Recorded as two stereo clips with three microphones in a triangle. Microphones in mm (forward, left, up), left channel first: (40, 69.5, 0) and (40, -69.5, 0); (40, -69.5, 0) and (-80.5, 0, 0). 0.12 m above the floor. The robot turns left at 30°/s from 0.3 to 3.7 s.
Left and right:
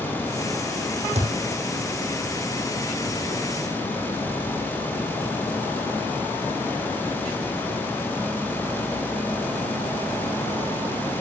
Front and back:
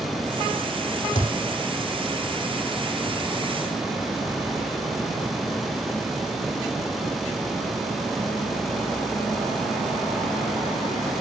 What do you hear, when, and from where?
1.1 s a thud: 55° right, 3 m; by 1.4 s 60° right, 3 m